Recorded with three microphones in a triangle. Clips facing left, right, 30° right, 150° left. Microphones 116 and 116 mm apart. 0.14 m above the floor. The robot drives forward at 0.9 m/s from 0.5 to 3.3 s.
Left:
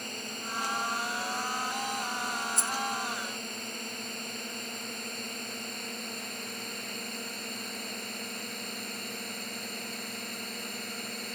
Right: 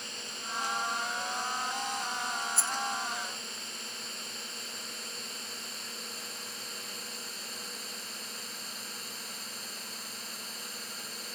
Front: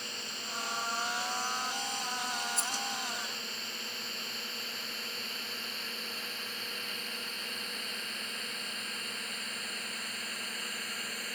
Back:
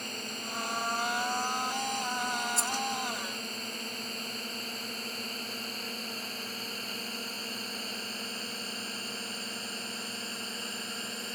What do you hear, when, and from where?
0.0 s a drone: 115° left; by 11.4 s 90° left
2.6 s a rattle: 160° left